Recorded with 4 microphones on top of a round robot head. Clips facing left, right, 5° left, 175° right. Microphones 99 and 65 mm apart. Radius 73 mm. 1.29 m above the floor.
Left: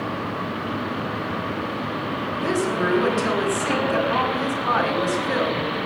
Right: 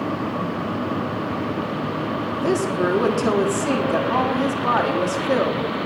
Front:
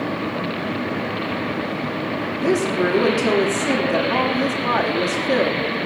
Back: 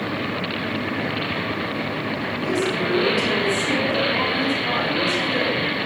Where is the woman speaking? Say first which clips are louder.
Right 2 dB, front 4 dB; 35° right, 3.5 m.